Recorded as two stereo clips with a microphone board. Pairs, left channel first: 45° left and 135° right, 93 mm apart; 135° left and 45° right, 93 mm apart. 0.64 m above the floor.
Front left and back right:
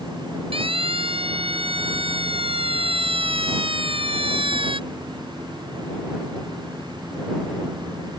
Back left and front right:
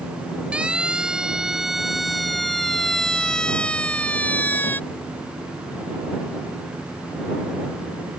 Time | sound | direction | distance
0.5 | a siren | 125° right | ?